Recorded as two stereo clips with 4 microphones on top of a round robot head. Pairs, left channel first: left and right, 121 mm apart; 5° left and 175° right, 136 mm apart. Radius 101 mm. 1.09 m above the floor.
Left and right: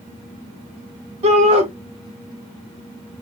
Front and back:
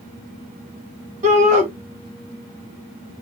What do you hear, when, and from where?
1.2 s a shout: 135° right, 1.7 m